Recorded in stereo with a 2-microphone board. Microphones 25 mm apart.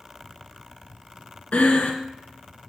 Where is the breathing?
70° left (ahead or behind), 1.3 m.